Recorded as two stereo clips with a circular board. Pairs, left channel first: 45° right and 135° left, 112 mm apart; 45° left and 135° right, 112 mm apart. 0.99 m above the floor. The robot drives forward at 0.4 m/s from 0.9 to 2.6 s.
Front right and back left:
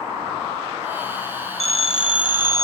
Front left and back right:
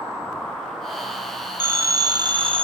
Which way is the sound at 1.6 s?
65° right.